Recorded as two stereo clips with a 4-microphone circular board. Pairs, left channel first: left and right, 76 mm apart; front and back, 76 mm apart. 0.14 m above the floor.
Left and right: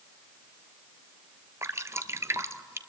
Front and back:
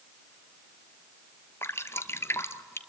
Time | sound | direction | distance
1.6 | dripping | 45° right | 0.8 m